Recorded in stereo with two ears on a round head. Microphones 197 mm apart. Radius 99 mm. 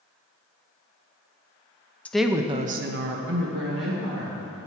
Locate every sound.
2.0 s a woman speaking: 5° left (ahead or behind), 0.7 m; by 4.4 s 55° right (ahead or behind), 1.9 m